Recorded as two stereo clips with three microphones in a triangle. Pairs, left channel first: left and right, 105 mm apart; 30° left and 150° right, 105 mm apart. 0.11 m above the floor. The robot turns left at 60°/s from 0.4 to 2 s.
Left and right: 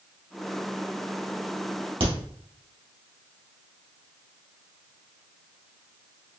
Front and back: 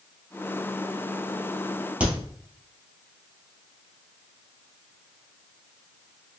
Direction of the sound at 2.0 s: 75° right.